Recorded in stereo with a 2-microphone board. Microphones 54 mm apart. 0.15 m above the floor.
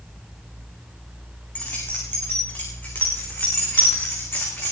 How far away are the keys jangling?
About 9.5 m.